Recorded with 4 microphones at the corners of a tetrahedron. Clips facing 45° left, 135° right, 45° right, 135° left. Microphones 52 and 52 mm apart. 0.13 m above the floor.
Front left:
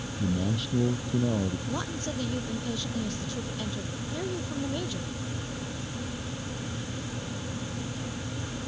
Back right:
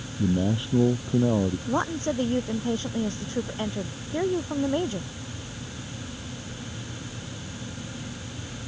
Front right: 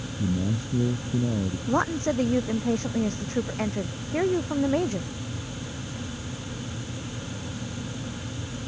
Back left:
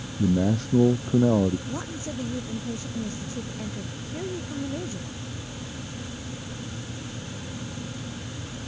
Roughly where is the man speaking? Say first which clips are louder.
Back right 5 dB, back left 5 dB; behind.